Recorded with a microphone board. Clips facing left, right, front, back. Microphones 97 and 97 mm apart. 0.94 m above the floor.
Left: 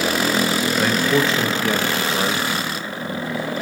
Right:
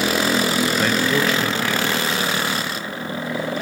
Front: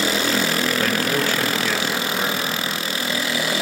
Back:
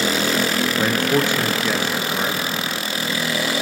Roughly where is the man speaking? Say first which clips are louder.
Left 1 dB, back 2 dB; behind.